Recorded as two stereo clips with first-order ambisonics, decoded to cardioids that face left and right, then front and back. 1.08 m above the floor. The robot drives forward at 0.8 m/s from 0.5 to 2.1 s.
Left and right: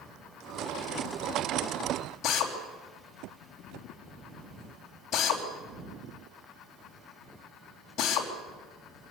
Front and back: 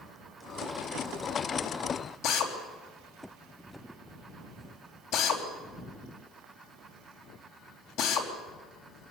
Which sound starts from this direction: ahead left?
A drill, at 2.2 s.